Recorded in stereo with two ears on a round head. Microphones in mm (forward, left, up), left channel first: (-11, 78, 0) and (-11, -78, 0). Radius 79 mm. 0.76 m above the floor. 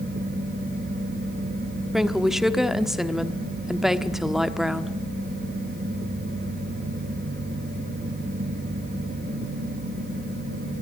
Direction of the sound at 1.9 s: Centre (ahead or behind).